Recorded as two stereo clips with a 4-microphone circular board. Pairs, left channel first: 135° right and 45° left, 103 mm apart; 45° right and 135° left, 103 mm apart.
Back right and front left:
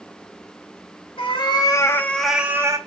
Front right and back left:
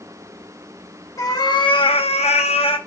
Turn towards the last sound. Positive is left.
turn(degrees=-15)